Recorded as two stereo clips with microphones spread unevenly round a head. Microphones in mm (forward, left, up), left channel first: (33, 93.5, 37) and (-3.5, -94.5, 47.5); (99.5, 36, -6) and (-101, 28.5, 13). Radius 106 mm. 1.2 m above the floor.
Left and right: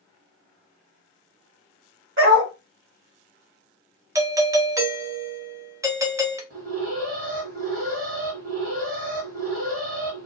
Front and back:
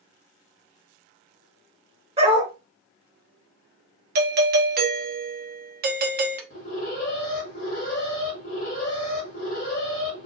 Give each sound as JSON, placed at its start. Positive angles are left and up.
{"t": 2.2, "sound": "a dog barking", "azimuth_deg": -120, "distance_m": 1.6}
{"t": 4.2, "sound": "a doorbell", "azimuth_deg": -170, "distance_m": 0.6}
{"t": 6.5, "sound": "an alarm", "azimuth_deg": -55, "distance_m": 1.1}